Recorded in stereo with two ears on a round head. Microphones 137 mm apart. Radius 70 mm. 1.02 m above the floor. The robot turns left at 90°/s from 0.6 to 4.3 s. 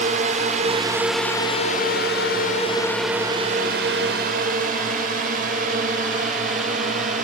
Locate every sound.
0.0 s a drone: 50° right (ahead or behind)